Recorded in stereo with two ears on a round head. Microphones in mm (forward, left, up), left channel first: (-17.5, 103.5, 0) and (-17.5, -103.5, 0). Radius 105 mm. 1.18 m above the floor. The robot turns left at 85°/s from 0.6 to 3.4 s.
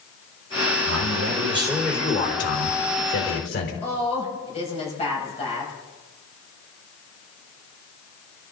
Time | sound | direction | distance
0.8 | a man speaking | 100° right | 4 m
3.8 | a woman speaking | 30° left (ahead or behind) | 6.5 m